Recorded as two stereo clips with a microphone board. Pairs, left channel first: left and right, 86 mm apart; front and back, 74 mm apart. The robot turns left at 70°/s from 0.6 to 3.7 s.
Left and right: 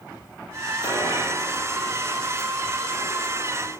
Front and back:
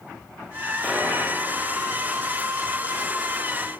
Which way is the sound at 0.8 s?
80° left.